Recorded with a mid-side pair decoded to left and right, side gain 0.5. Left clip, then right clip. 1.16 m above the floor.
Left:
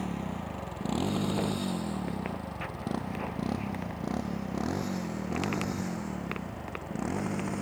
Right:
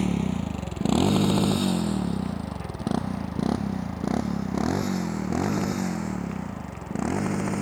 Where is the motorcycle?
60° right; by 7.6 s 40° right.